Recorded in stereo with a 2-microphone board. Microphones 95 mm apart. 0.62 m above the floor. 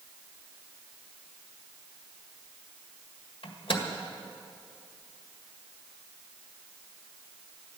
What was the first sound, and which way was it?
A microwave, 70° left (ahead or behind).